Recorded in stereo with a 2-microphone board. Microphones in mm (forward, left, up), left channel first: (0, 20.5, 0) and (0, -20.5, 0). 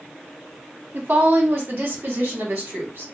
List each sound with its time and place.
0.9 s a woman speaking: 45° right (ahead or behind), 1.0 m; by 3.0 s 65° right (ahead or behind), 1.9 m